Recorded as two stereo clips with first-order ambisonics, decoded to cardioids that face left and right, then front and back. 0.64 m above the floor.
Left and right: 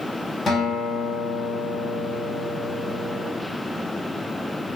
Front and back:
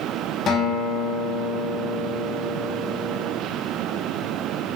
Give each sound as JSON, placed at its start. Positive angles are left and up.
{"t": 0.5, "sound": "a guitar", "azimuth_deg": 25, "distance_m": 0.8}